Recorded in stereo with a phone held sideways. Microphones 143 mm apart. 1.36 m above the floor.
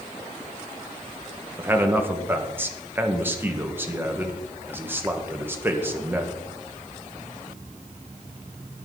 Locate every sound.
1.6 s a man speaking: 15° right (ahead or behind), 1.5 m